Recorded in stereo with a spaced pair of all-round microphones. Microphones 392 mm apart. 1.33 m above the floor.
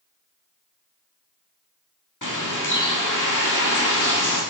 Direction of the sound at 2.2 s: 50° left (ahead or behind).